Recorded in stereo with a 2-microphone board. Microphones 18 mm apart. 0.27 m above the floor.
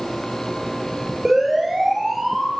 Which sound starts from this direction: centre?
A siren, at 1.2 s.